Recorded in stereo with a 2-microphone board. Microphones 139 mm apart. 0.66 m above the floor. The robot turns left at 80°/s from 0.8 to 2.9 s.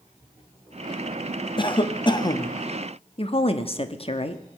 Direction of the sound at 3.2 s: 40° left (ahead or behind).